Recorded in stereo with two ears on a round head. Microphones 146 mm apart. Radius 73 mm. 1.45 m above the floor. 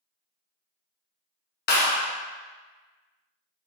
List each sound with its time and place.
1.7 s a clap: 65° left (ahead or behind), 0.9 m